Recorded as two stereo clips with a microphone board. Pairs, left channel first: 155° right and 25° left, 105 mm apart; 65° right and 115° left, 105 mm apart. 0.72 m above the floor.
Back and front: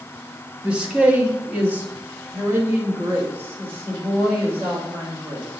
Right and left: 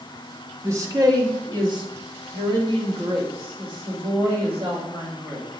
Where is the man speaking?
90° left, 1.0 m; by 5.5 s 85° left, 3 m.